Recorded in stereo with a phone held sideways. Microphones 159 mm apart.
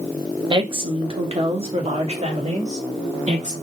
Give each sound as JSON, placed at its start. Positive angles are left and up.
{"t": 0.5, "sound": "a woman speaking", "side_deg": -30, "distance_m": 0.9}